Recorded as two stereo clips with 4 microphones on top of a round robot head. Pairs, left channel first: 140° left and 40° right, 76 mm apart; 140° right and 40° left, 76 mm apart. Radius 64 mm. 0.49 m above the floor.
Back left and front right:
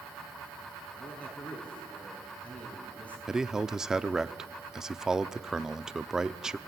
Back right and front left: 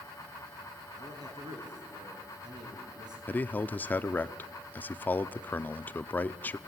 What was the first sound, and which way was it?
A man speaking, 70° left.